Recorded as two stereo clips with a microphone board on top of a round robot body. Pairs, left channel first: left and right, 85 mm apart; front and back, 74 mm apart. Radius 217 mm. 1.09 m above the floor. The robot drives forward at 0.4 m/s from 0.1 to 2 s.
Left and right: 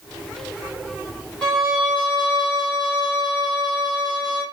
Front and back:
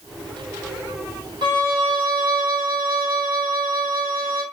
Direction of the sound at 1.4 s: 175° left.